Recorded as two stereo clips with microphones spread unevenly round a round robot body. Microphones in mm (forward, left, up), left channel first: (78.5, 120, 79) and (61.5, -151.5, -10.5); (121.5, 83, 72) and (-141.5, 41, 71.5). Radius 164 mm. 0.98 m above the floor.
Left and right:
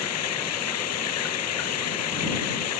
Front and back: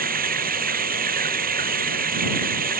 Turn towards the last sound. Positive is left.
turn(degrees=130)